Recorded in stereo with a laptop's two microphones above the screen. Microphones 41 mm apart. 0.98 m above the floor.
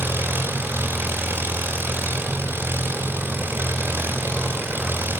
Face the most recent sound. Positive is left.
turn(degrees=-65)  # may be behind; listen again after turning